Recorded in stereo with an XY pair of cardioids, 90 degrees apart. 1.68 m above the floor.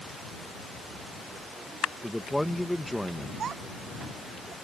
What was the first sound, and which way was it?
A man speaking, 5° left.